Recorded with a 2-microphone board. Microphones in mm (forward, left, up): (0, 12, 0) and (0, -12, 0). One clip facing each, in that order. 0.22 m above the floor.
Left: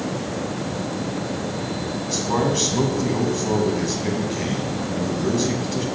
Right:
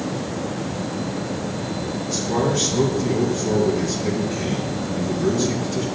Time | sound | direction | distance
2.1 | a man speaking | 40° left (ahead or behind) | 2.0 m